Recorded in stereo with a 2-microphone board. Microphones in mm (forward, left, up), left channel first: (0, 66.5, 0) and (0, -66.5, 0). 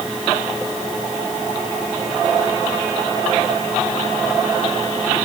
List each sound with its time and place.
Only background noise.